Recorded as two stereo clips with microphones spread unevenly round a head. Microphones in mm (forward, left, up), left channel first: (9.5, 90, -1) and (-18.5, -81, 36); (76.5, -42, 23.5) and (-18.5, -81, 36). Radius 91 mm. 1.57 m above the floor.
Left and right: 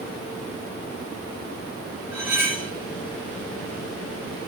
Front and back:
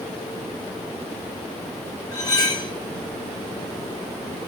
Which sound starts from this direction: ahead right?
Cutlery clinking, at 2.1 s.